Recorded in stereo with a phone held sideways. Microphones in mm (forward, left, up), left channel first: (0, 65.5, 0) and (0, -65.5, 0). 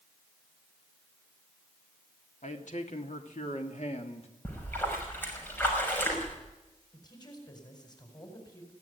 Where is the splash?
15° left (ahead or behind), 5.5 m.